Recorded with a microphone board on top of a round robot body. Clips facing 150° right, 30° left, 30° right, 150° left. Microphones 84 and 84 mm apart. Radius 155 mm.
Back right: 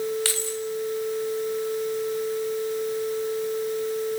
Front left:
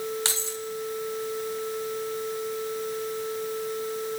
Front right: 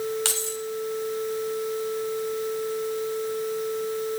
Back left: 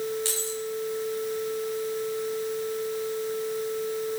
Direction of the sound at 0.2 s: 35° right.